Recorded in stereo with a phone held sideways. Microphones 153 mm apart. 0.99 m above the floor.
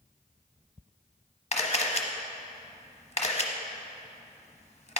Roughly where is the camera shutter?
Left.